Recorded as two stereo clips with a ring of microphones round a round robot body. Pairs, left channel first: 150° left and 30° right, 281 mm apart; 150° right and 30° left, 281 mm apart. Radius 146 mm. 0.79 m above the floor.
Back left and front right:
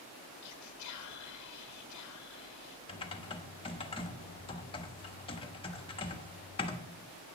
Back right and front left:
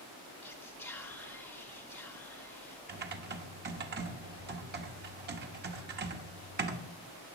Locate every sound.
0.4 s whispering: 125° left, 1.0 m
2.9 s typing on a keyboard: 80° left, 1.2 m